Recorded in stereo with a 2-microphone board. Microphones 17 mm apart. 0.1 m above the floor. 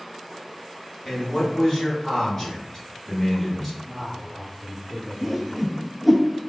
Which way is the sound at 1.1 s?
15° left (ahead or behind).